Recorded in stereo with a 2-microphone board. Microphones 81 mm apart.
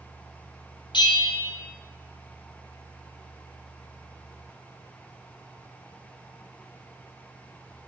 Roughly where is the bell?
Left.